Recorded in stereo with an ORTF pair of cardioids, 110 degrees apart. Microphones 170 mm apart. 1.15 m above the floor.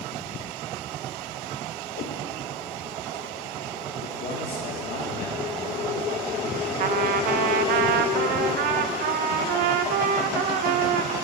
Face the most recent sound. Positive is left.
turn(degrees=-65)